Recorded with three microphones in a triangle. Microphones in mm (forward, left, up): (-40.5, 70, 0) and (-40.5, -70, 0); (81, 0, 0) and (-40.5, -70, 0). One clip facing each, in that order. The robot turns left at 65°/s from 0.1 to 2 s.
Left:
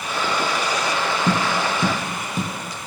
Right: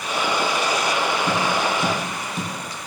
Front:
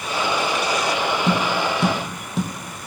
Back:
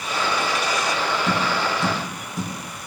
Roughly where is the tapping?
Left.